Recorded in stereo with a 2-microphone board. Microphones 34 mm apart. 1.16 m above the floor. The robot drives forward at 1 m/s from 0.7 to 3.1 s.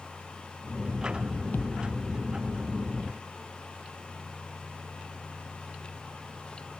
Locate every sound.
1.5 s a thud: 55° left (ahead or behind); by 1.9 s 50° left (ahead or behind)